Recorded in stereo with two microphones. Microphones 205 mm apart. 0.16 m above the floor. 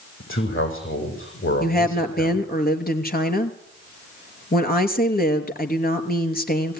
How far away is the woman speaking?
About 2.5 m.